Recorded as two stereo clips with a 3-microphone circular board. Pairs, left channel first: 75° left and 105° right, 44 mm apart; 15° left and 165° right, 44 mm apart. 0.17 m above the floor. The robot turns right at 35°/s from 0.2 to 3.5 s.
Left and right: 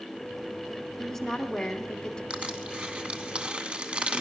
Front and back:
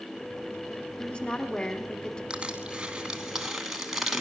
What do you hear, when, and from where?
1.0 s a woman speaking: 5° right, 1.1 m; by 2.2 s 40° left, 1.1 m
2.3 s crushing: 135° right, 1.1 m; by 4.2 s 90° right, 1.1 m